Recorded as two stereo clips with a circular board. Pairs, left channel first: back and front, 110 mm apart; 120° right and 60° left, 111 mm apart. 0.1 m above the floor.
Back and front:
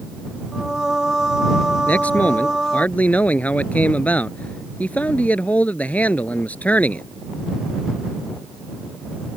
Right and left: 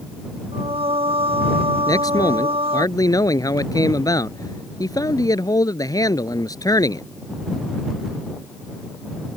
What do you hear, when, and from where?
0.5 s singing: 85° left
1.9 s a man speaking: 115° right